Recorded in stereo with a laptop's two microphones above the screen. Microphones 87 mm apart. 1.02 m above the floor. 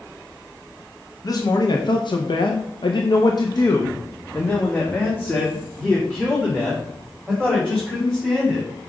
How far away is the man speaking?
About 1.0 m.